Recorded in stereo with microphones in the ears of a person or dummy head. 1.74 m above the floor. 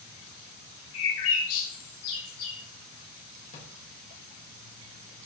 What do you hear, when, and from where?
0.9 s a bird: 80° left, 4 m
3.5 s a drawer: 40° left (ahead or behind), 3 m